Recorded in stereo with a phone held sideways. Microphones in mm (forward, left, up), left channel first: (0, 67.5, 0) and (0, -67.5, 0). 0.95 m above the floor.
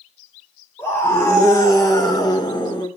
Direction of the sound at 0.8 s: 20° left (ahead or behind).